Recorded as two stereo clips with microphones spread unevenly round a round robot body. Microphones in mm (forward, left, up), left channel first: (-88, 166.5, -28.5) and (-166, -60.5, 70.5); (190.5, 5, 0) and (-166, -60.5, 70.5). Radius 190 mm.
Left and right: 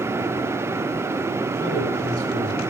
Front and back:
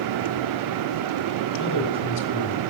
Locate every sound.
1.6 s a man speaking: 20° right, 2.5 m